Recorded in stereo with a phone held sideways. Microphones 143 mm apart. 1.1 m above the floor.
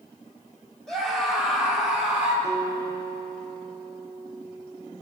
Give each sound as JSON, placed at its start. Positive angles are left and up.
{"t": 0.9, "sound": "a scream", "side_deg": 5, "distance_m": 4.0}
{"t": 2.4, "sound": "a guitar", "side_deg": -30, "distance_m": 4.0}